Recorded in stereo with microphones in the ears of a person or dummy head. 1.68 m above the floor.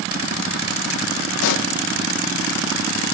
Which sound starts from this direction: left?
A pop, at 1.4 s.